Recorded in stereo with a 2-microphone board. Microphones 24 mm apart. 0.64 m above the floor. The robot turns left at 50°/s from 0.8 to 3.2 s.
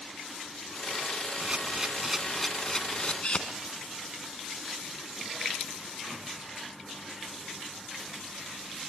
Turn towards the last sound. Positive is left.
turn(degrees=40)  # may be behind; listen again after turning